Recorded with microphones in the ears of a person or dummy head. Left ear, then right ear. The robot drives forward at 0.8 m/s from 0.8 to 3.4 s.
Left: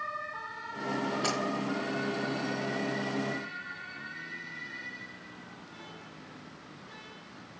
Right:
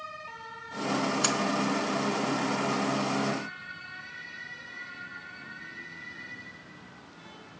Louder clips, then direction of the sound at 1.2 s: Right 2 dB; 75° right (ahead or behind).